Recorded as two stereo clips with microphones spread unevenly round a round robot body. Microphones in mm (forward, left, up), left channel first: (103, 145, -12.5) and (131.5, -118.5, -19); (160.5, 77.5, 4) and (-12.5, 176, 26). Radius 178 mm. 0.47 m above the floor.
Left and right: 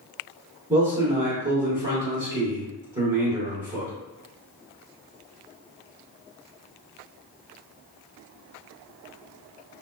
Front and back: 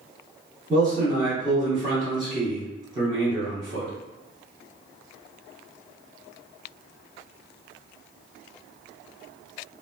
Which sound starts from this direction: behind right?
A man speaking, at 0.7 s.